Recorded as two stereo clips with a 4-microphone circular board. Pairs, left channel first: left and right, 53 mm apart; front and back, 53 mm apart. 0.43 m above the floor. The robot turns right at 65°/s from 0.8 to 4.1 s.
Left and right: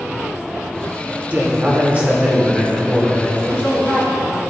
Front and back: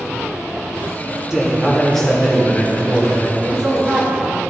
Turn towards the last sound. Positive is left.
turn(degrees=-85)